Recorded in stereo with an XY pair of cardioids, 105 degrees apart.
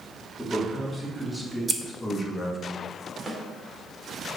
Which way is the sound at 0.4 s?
5° left.